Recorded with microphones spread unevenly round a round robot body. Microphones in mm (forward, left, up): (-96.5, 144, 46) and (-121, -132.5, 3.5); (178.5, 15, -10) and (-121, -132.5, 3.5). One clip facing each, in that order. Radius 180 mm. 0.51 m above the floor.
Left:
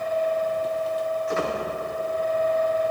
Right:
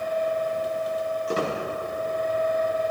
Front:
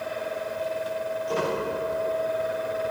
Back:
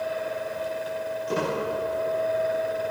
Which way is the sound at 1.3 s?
145° right.